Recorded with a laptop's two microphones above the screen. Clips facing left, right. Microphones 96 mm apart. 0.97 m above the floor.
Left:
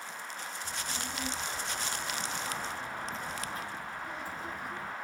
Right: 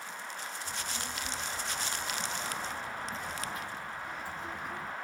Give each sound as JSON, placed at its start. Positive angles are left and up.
{"t": 0.6, "sound": "a child speaking", "side_deg": 65, "distance_m": 1.5}